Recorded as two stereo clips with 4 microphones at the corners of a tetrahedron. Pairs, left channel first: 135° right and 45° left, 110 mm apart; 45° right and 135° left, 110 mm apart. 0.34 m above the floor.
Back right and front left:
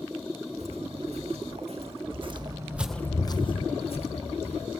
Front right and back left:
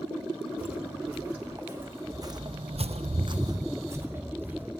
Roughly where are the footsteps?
Ahead left.